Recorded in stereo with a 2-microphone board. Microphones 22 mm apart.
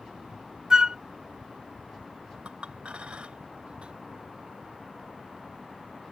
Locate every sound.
0.7 s a flute: 30° right (ahead or behind)
2.5 s a clink: 55° right (ahead or behind)